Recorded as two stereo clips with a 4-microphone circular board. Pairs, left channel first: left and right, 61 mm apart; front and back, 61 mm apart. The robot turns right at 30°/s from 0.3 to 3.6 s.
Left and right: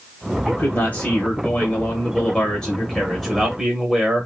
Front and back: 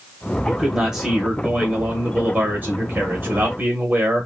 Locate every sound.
0.5 s a man speaking: 95° left, 1.1 m; by 4.3 s 170° right, 1.1 m